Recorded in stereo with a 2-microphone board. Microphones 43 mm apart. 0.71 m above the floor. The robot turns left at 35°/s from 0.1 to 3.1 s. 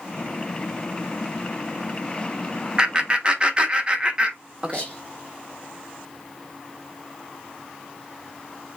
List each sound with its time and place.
2.8 s laughter: 20° right (ahead or behind), 1.0 m; by 4.8 s 25° right (ahead or behind), 1.0 m
4.7 s whispering: 30° left (ahead or behind), 1.7 m